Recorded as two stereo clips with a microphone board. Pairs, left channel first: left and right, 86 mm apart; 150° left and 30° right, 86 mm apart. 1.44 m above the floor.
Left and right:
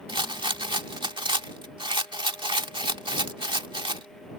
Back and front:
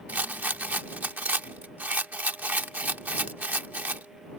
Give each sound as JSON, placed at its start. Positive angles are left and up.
{"t": 0.1, "sound": "a rattle", "azimuth_deg": -100}